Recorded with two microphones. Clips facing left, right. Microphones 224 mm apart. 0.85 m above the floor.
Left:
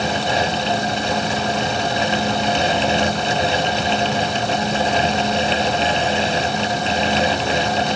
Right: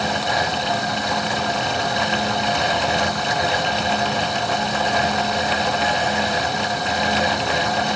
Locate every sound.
Only background noise.